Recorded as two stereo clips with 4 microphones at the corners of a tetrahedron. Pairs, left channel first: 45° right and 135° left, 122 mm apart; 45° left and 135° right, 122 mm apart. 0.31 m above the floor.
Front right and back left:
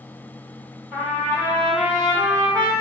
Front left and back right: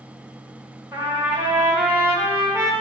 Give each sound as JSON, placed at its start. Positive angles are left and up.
{"t": 0.9, "sound": "a trumpet", "azimuth_deg": 180, "distance_m": 1.6}